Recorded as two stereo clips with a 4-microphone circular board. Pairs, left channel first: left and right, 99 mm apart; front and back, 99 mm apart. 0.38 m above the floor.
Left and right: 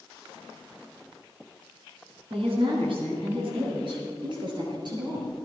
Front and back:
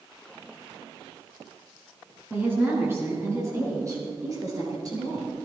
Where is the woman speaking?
110° right, 5 m; by 5.3 s 130° right, 8 m.